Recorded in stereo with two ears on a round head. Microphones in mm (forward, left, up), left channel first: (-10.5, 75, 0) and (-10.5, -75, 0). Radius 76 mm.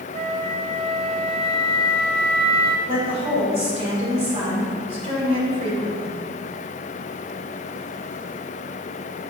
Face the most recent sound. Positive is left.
turn(degrees=-40)  # may be behind; listen again after turning